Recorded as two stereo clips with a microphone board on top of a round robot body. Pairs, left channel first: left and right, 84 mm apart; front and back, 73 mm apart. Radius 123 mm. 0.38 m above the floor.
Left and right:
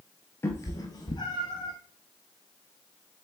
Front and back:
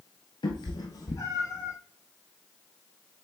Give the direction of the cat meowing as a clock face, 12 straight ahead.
11 o'clock.